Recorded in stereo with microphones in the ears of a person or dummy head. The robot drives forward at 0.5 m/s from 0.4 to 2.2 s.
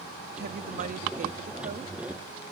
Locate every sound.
0.4 s a woman speaking: 60° right (ahead or behind); by 2.0 s 40° right (ahead or behind)